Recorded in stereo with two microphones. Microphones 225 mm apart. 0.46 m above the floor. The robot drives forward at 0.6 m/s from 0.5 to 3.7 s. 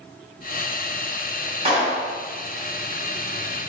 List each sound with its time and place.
1.6 s a clap: 25° right (ahead or behind), 2.0 m; by 2.1 s 30° right (ahead or behind), 1.8 m